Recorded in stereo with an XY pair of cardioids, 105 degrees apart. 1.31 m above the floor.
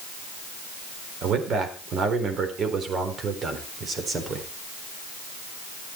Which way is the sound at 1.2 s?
65° right.